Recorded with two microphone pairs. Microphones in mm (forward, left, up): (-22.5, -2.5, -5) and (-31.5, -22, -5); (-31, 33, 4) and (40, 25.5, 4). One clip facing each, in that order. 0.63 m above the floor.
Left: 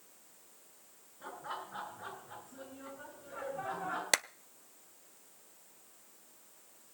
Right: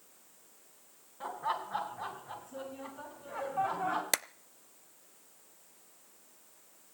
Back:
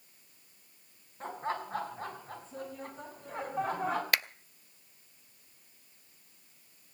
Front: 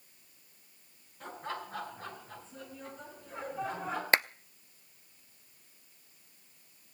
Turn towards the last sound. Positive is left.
turn(degrees=-20)